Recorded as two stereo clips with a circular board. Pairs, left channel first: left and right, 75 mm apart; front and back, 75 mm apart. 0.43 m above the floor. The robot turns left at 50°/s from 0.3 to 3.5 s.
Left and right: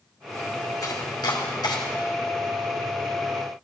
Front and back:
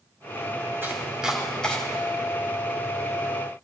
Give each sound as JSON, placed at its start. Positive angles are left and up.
{"t": 0.8, "sound": "chopping", "azimuth_deg": 125, "distance_m": 1.7}